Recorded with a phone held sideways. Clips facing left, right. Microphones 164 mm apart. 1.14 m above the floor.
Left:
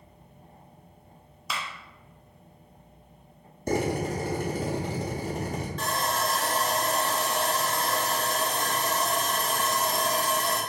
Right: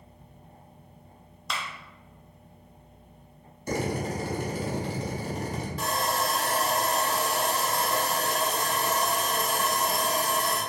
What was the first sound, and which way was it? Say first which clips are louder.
A clap: even; 5° left (ahead or behind).